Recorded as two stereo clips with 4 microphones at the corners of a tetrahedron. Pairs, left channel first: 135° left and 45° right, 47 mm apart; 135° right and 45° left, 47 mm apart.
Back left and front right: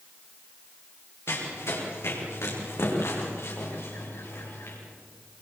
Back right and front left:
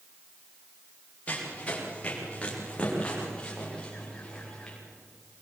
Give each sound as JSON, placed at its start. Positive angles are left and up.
{"t": 1.3, "sound": "running footsteps", "azimuth_deg": 165, "distance_m": 7.5}